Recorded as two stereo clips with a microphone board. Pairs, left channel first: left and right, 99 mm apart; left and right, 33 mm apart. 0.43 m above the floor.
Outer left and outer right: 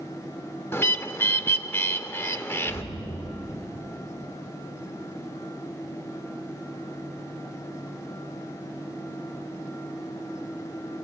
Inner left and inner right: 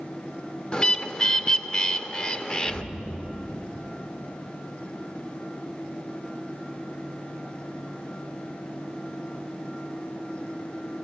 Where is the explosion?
50° left (ahead or behind), 1.5 m.